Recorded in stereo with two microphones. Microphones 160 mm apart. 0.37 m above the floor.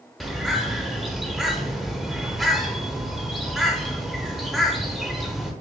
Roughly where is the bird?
Centre.